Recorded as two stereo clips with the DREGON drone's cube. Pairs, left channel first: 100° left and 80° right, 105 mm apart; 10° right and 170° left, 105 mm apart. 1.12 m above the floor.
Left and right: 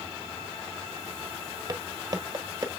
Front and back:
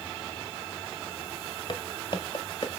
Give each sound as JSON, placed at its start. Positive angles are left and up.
{"t": 1.7, "sound": "footsteps", "azimuth_deg": -30, "distance_m": 1.7}